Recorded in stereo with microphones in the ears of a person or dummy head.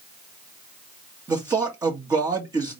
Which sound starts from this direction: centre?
A man speaking, at 1.3 s.